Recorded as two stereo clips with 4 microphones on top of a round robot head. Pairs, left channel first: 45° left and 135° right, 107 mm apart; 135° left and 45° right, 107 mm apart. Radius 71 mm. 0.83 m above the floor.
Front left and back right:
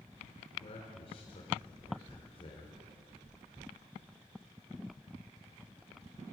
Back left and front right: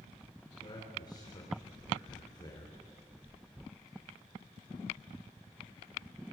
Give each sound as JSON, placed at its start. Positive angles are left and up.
{"t": 0.6, "sound": "a man speaking", "azimuth_deg": 85, "distance_m": 4.0}